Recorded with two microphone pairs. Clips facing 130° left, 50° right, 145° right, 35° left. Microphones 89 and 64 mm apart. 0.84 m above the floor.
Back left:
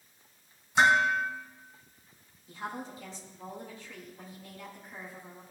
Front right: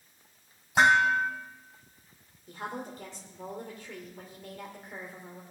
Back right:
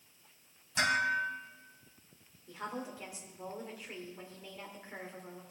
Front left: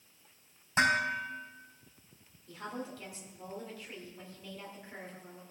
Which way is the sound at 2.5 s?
75° right.